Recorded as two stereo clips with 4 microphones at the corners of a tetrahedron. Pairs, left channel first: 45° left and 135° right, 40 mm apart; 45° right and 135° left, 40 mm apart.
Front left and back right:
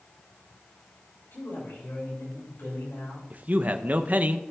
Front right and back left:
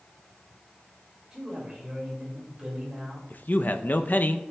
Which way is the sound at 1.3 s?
60° left.